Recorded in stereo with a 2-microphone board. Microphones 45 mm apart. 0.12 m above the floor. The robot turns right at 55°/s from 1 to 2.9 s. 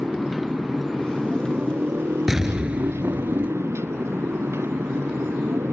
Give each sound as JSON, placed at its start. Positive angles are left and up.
{"t": 0.0, "sound": "a motorcycle", "azimuth_deg": 180}
{"t": 2.3, "sound": "an explosion", "azimuth_deg": -170}